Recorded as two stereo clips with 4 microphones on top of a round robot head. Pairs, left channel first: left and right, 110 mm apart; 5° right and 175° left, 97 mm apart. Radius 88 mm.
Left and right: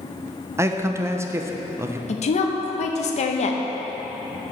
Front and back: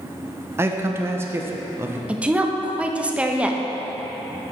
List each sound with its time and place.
0.6 s a man speaking: 135° right, 0.6 m
2.1 s a woman speaking: 100° left, 0.7 m